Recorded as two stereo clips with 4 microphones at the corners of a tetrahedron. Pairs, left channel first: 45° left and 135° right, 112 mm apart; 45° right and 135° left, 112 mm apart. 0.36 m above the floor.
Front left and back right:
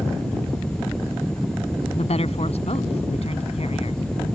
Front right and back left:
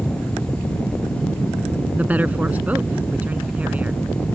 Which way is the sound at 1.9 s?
60° left.